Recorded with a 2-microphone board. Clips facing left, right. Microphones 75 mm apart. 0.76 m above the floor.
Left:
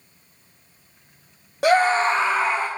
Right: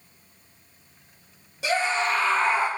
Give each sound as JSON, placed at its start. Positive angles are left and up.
{"t": 1.6, "sound": "a scream", "side_deg": 55, "distance_m": 0.7}